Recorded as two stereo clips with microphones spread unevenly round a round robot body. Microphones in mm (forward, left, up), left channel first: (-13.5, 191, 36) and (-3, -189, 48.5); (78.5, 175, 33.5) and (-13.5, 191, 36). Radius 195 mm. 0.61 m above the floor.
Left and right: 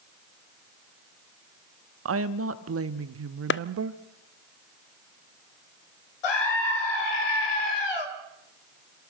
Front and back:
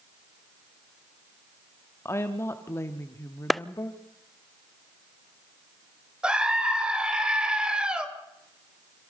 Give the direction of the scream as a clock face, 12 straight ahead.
9 o'clock.